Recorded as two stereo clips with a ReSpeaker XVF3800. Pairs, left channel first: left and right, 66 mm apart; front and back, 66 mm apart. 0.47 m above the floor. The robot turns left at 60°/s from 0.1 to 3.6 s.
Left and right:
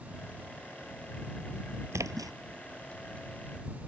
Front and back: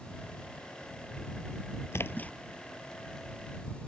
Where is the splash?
45° right; by 2.3 s 70° right.